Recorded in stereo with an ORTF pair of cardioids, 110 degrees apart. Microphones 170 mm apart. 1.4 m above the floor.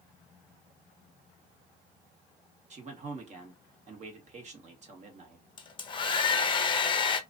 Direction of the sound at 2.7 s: 45° right.